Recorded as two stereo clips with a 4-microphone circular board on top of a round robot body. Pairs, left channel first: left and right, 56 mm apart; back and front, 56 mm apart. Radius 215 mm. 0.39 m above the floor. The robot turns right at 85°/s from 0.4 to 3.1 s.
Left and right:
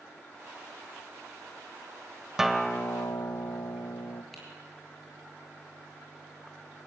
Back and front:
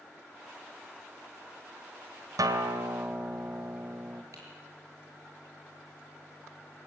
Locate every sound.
2.4 s a guitar: 5° right, 1.3 m; by 4.2 s 55° left, 1.3 m
4.3 s typing on a keyboard: 5° left, 6.5 m